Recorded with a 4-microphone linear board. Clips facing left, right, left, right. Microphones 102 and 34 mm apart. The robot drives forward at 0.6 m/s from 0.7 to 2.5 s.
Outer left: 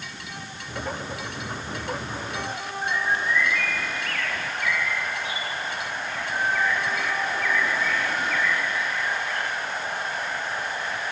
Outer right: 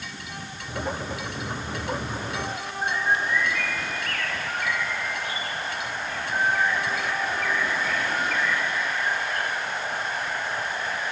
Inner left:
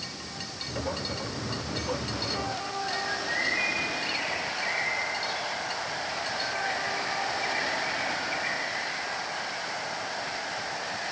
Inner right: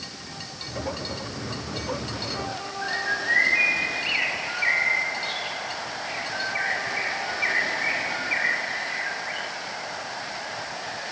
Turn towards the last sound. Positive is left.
turn(degrees=-45)  # may be behind; listen again after turning